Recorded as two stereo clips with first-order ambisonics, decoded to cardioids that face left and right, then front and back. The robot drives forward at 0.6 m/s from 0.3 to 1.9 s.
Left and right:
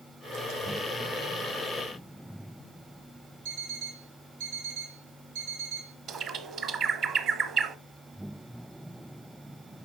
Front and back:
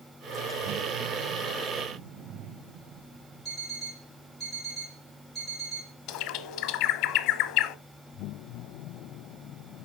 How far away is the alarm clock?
About 4.5 m.